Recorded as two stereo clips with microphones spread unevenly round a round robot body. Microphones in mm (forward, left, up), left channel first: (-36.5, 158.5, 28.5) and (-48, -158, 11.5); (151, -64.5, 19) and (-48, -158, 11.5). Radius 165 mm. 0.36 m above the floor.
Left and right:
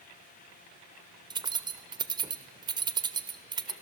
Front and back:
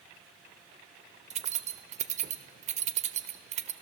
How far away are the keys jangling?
About 0.8 m.